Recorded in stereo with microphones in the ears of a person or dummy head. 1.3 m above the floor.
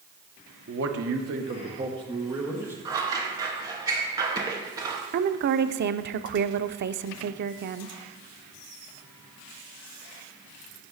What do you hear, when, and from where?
0.7 s a man speaking: 70° right (ahead or behind), 1.2 m; by 2.8 s 10° right (ahead or behind), 1.8 m
2.9 s scissors: 20° right (ahead or behind), 0.9 m
5.1 s a woman speaking: 55° right (ahead or behind), 0.5 m